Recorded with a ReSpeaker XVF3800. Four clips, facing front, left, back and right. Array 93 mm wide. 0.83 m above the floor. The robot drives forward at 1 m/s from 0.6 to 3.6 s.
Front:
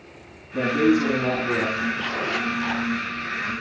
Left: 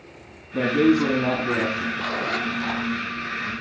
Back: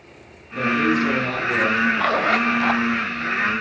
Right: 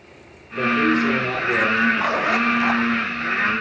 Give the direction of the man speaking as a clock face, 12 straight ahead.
10 o'clock.